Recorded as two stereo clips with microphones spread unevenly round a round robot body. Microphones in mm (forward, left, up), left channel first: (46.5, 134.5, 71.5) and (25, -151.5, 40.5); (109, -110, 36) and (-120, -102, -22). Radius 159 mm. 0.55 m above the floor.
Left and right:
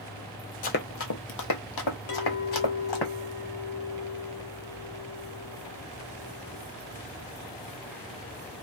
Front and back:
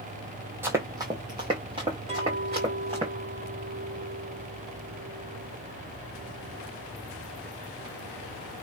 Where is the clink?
95° left, 1.5 m.